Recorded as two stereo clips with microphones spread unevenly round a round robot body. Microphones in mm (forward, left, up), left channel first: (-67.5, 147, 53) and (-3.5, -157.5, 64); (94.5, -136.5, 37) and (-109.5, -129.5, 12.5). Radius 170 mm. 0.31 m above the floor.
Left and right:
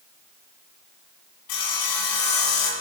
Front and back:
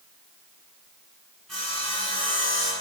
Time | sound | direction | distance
1.5 | sawing | 90° left | 1.6 m